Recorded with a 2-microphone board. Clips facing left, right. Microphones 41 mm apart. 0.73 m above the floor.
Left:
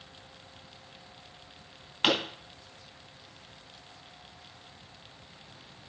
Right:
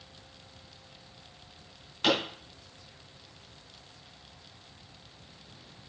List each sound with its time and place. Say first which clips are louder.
2.0 s a pop: even; 40° left (ahead or behind), 3.5 m